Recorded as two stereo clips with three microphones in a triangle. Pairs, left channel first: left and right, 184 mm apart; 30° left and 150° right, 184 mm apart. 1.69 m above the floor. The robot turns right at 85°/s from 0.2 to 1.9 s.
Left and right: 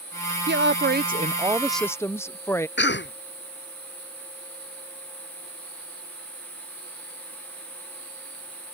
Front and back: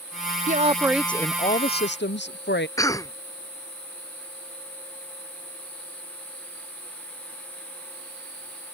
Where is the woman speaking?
110° right; by 2.7 s 15° left.